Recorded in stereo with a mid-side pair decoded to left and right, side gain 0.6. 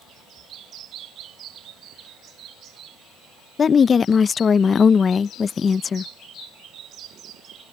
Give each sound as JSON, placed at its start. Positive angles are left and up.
{"t": 3.6, "sound": "a woman speaking", "azimuth_deg": 30}